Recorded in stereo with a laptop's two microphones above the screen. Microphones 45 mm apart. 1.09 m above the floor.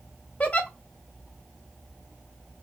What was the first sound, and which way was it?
A giggle, 30° left (ahead or behind).